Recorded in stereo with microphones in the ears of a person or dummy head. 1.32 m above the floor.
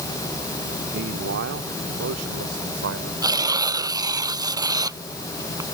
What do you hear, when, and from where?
0.9 s a man speaking: 65° right (ahead or behind); by 3.1 s 70° right (ahead or behind)
3.2 s tearing paper: 20° right (ahead or behind)